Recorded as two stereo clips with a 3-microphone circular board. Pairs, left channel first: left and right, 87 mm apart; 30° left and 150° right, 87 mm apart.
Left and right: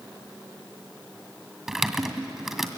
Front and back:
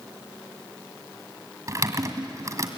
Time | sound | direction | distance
1.7 | typing on a keyboard | 175° right | 1.9 m